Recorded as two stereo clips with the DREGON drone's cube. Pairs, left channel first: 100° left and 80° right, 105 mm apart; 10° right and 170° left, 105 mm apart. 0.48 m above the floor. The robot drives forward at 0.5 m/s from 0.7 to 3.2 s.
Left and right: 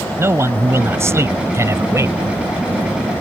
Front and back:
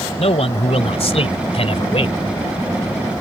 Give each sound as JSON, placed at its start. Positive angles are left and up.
{"t": 0.2, "sound": "a man speaking", "azimuth_deg": -15}